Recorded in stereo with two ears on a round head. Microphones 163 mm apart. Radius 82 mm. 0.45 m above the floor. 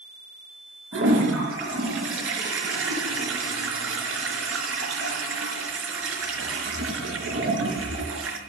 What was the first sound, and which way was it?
A toilet flushing, 80° right.